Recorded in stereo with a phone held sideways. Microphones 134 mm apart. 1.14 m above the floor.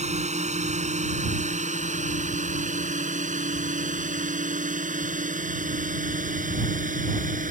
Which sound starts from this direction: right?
A drone, at 0.0 s.